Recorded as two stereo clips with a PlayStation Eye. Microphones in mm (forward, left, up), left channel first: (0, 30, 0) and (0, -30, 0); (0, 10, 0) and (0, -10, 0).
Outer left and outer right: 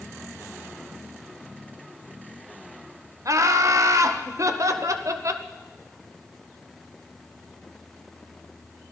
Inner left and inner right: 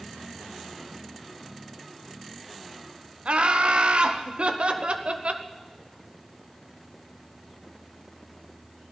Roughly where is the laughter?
Right.